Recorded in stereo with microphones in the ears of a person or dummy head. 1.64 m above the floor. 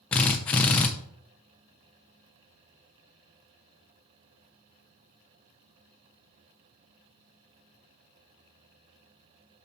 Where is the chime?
I don't hear a chime.